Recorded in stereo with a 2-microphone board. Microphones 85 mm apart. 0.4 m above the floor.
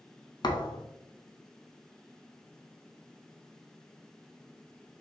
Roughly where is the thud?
Left.